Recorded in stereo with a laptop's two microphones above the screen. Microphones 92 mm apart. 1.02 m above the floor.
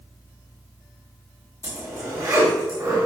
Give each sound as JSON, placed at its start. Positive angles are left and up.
{"t": 1.6, "sound": "a zipper", "side_deg": -35, "distance_m": 2.0}